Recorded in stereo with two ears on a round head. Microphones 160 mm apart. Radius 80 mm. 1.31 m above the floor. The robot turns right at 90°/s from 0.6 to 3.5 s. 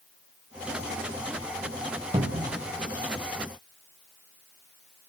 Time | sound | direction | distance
2.1 | a cupboard door | 155° right | 1.8 m